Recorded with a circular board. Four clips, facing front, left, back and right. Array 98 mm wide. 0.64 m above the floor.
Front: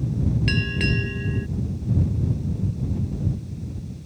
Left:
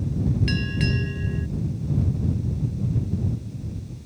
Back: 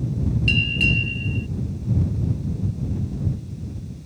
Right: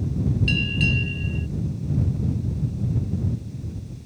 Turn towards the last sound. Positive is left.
turn(degrees=25)